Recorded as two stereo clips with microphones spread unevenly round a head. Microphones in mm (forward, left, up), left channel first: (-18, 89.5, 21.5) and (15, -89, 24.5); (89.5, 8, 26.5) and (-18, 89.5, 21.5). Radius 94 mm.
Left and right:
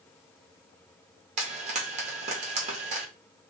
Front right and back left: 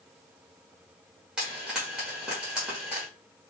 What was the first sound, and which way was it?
Frying, 135° right.